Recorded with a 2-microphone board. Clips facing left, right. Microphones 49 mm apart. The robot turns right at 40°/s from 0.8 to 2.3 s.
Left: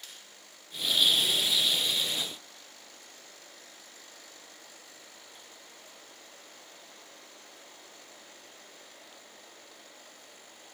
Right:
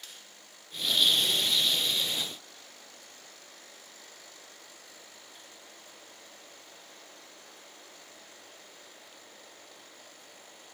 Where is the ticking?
No ticking in this recording.